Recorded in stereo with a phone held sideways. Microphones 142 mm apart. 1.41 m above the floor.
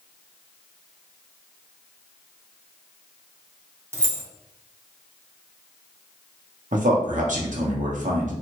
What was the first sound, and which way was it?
Keys jangling, 20° right (ahead or behind).